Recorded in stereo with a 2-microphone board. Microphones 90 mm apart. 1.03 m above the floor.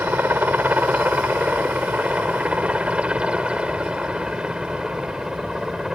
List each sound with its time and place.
0.0 s a helicopter: 20° right (ahead or behind); by 6.0 s 5° right (ahead or behind)